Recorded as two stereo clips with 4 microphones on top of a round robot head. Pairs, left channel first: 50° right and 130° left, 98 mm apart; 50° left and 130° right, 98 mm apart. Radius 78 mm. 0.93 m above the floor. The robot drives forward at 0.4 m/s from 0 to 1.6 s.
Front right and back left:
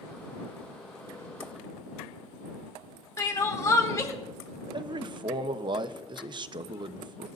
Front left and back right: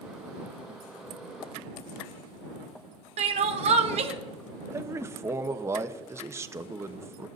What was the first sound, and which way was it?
Crying, 110° right.